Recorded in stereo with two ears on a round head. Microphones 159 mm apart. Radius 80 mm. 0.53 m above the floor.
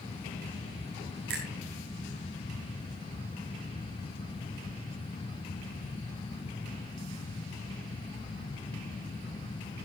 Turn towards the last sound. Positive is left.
turn(degrees=-55)  # may be behind; listen again after turning